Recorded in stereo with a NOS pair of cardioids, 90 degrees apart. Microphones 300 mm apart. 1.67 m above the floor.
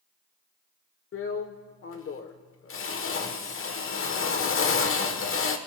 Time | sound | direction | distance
1.1 | a drill | 45° left | 1.2 m